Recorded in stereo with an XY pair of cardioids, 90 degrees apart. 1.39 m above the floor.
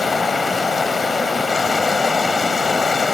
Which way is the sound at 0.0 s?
40° left.